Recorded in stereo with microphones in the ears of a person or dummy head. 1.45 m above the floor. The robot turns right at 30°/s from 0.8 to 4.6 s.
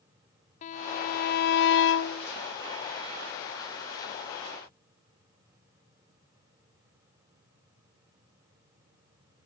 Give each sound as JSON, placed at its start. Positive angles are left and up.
{"t": 0.6, "sound": "a violin", "azimuth_deg": 45, "distance_m": 0.5}